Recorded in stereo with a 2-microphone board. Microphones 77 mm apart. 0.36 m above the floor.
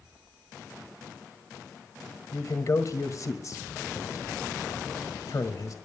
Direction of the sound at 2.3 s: 50° left (ahead or behind).